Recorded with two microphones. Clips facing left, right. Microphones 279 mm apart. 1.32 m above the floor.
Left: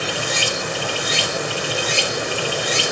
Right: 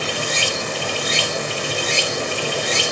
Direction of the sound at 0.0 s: 10° left (ahead or behind).